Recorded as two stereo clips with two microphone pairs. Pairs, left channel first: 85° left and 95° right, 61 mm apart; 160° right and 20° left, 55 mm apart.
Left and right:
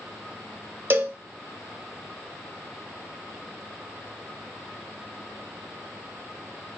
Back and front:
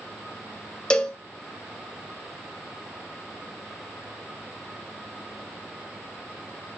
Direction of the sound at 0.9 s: 100° right.